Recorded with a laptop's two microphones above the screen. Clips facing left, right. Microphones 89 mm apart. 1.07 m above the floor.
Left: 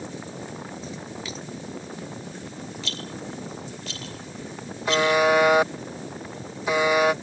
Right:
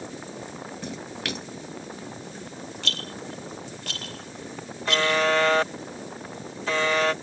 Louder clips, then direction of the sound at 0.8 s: Right 1 dB; 70° right (ahead or behind).